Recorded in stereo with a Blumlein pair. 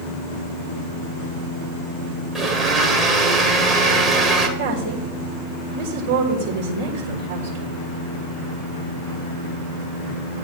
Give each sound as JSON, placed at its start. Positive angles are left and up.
{"t": 2.4, "sound": "a blender", "azimuth_deg": -10, "distance_m": 1.3}
{"t": 4.6, "sound": "a woman speaking", "azimuth_deg": -60, "distance_m": 1.7}